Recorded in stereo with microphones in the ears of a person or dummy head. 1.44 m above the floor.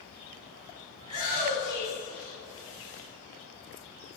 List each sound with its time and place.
1.0 s a shout: 30° right (ahead or behind), 7 m; by 3.0 s 45° right (ahead or behind), 8 m